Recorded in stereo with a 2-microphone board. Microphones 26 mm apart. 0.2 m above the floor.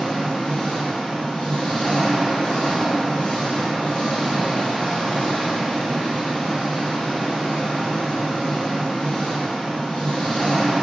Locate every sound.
0.0 s an engine running: 55° left (ahead or behind), 1.2 m